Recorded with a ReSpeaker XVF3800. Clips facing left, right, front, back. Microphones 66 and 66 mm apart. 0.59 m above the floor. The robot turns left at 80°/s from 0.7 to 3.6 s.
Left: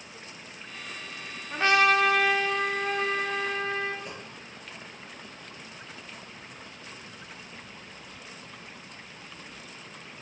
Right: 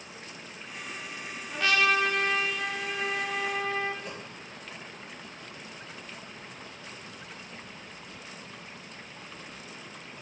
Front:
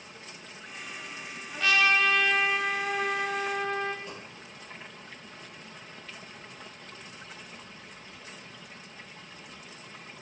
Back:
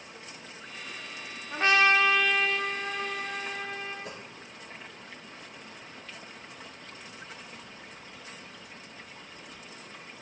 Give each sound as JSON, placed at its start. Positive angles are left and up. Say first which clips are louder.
{"t": 1.5, "sound": "a trumpet", "louder": "left 3 dB, back 2 dB", "azimuth_deg": 150, "distance_m": 0.9}
{"t": 4.0, "sound": "a dropped coin", "louder": "right 1 dB, even", "azimuth_deg": 180, "distance_m": 3.0}